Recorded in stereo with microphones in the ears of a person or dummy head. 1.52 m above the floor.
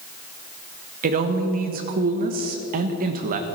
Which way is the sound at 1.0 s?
50° right (ahead or behind).